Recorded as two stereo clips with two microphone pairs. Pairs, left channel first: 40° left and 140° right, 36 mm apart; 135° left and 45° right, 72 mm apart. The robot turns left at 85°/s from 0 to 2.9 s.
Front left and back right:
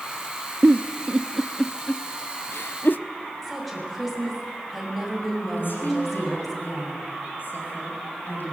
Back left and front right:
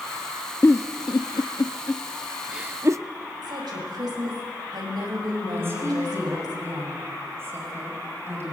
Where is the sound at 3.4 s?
55° right, 6 m.